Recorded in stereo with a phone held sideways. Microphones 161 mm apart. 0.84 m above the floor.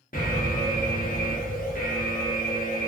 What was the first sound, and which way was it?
An alarm, 60° left (ahead or behind).